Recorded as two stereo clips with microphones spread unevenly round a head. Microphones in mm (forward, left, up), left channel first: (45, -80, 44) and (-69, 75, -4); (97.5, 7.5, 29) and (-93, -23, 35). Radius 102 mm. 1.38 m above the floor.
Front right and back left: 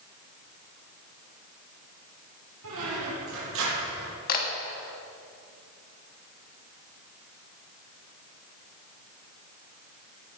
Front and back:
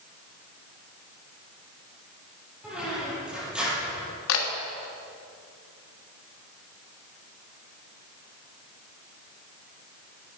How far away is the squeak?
About 7 m.